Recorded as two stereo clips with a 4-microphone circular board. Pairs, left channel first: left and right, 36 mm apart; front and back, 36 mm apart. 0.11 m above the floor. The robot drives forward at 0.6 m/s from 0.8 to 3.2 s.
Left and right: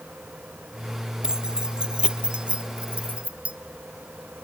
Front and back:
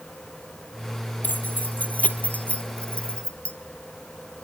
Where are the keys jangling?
25° right, 2.5 m; by 3.5 s 45° right, 1.4 m.